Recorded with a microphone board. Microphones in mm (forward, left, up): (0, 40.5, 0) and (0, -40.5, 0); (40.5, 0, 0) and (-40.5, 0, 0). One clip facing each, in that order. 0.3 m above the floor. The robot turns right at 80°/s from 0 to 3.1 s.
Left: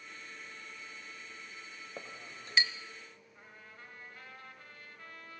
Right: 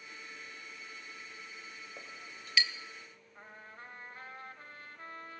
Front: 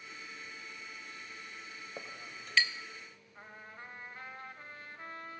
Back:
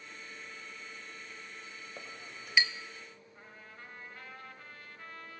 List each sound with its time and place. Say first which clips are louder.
2.0 s a clink: left 2 dB, front 2 dB; 65° left, 0.5 m; by 2.7 s 125° left, 0.5 m
3.4 s a trumpet: right 5 dB, front 4 dB; 55° right, 0.9 m